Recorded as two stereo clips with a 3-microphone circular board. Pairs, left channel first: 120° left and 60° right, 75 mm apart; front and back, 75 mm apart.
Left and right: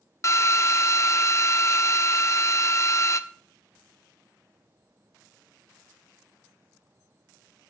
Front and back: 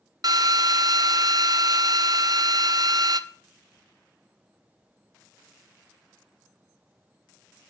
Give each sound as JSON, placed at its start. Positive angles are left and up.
{"t": 0.2, "sound": "a drill", "azimuth_deg": 165, "distance_m": 0.6}